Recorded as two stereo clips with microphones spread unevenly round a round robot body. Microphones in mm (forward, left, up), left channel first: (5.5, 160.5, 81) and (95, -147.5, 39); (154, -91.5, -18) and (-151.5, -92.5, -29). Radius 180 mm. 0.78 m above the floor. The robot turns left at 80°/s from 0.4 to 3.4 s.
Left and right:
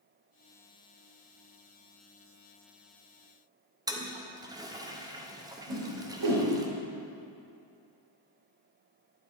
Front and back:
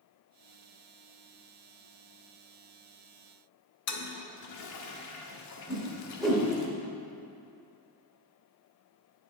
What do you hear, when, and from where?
3.9 s a toilet flushing: 5° right, 0.7 m
5.7 s a whoosh: 90° right, 1.5 m